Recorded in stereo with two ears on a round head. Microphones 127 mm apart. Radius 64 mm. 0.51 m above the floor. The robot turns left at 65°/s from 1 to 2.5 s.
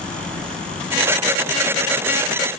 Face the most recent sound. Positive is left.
No sound to turn to.